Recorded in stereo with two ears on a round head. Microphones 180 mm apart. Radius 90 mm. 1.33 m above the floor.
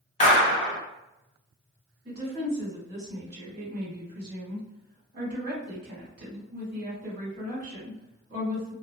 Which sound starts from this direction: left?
A clap, at 0.2 s.